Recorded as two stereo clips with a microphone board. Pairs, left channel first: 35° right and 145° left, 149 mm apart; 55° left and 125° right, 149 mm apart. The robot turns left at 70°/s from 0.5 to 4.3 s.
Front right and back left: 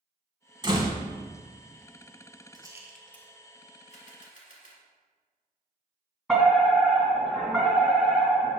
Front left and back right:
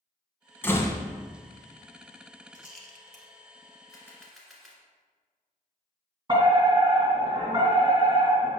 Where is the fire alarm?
120° right, 2.5 m.